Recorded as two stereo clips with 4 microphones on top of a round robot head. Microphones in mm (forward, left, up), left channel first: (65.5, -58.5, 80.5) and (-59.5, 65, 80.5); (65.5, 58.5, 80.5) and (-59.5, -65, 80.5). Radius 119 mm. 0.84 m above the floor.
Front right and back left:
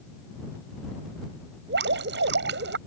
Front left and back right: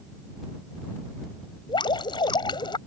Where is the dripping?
110° left.